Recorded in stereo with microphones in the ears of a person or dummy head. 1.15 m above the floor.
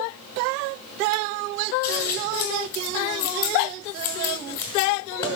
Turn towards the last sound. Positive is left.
turn(degrees=20)  # may be behind; listen again after turning